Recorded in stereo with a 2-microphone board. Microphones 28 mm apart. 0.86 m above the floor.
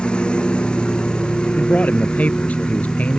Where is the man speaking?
70° left (ahead or behind).